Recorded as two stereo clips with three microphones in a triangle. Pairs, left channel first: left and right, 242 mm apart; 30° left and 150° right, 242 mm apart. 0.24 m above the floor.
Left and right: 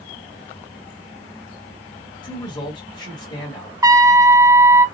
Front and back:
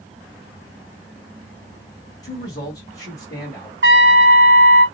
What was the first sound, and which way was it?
A man speaking, 65° left.